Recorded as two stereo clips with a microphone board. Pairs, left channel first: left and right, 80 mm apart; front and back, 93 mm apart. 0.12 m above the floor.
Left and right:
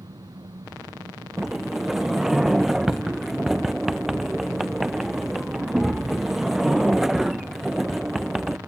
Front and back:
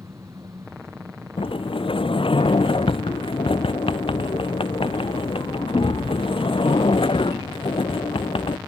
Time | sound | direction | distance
0.0 | an engine running | 125° right | ?
1.4 | a sliding door | 5° right | ?